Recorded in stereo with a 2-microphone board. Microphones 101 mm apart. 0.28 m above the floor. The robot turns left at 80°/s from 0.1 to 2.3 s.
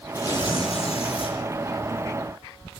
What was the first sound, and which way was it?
Tearing paper, 160° left.